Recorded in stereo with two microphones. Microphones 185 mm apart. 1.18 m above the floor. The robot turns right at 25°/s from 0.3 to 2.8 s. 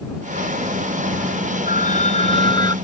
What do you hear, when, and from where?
1.7 s a phone ringing: 50° left (ahead or behind); by 2.8 s 20° left (ahead or behind)